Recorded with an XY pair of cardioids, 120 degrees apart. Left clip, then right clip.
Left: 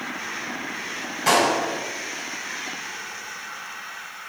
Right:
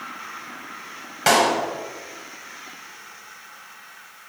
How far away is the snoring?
No snoring in this recording.